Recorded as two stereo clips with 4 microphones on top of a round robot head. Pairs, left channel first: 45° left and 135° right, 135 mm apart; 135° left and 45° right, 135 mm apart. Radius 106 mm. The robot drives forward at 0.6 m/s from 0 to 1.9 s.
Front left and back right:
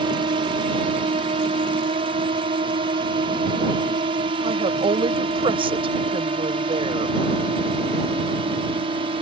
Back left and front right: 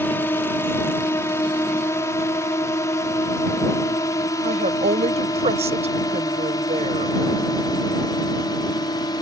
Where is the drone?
155° right; by 9.2 s 170° right.